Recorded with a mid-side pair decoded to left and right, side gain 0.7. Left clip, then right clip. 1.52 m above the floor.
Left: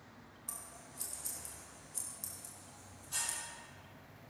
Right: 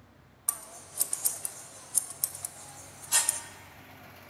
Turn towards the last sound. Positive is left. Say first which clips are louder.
# right 10 dB
turn(degrees=-50)